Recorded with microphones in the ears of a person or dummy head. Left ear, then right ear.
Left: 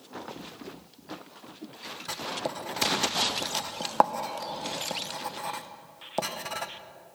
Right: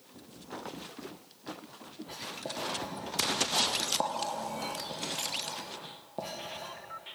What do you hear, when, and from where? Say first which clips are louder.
2.1 s writing: left 6 dB; 50° left (ahead or behind), 0.7 m